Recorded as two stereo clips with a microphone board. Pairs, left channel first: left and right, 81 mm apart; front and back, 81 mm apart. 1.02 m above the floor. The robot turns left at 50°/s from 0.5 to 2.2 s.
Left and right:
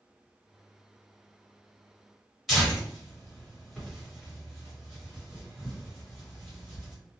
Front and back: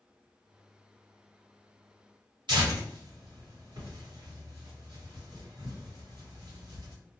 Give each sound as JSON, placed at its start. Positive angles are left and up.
{"t": 2.5, "sound": "tearing paper", "azimuth_deg": 180, "distance_m": 1.6}